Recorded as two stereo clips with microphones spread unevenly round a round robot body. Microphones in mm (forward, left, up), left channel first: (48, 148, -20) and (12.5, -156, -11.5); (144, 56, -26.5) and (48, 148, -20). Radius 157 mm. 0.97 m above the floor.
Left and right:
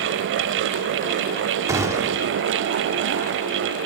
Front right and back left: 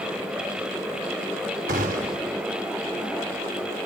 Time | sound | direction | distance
1.7 | a gunshot | straight behind | 1.4 m